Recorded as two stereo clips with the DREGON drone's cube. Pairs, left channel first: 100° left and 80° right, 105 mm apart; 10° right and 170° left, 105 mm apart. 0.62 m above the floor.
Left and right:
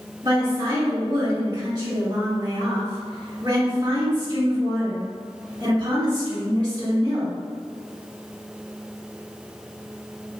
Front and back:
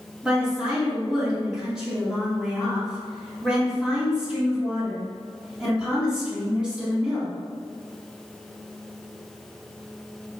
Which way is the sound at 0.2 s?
110° right.